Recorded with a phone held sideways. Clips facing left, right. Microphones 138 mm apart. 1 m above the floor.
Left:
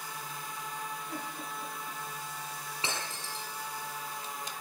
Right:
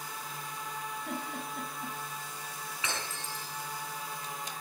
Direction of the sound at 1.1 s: 70° right (ahead or behind).